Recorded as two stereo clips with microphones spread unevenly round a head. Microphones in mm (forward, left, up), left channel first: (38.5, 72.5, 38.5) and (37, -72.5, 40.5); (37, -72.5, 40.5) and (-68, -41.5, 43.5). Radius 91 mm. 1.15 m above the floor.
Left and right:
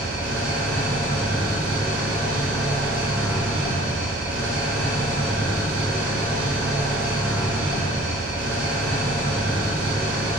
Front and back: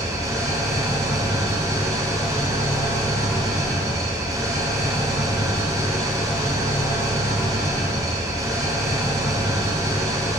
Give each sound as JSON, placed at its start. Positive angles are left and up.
{"t": 0.0, "sound": "an engine running", "azimuth_deg": -135, "distance_m": 1.2}